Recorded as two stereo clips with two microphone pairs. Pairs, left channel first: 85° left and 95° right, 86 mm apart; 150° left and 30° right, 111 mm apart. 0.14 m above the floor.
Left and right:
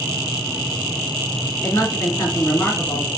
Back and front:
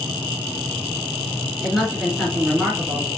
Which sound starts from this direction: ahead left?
A woman speaking, at 1.6 s.